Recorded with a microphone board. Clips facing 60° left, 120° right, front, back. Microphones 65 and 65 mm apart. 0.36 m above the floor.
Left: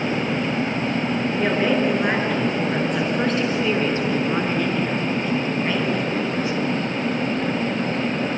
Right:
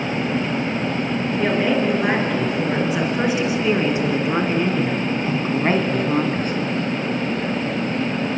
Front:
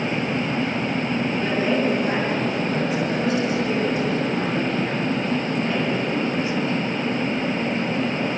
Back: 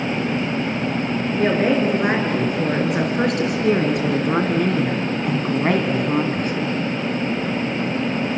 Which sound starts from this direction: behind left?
A woman speaking, at 1.4 s.